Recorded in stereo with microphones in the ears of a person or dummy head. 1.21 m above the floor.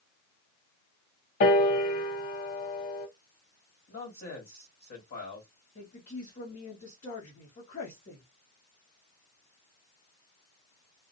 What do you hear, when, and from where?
1.4 s a piano: 50° left (ahead or behind), 0.8 m
3.9 s a man speaking: 45° left (ahead or behind), 1.6 m
5.8 s a woman speaking: 40° left (ahead or behind), 1.2 m